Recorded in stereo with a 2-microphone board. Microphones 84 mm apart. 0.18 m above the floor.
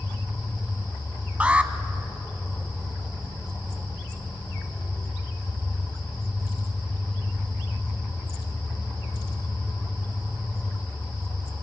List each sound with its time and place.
0.0 s an engine running: 10° left (ahead or behind), 9.5 m
1.4 s an alarm: 15° right (ahead or behind), 0.8 m